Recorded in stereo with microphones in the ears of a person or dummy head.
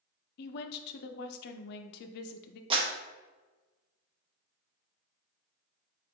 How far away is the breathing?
I don't hear breathing.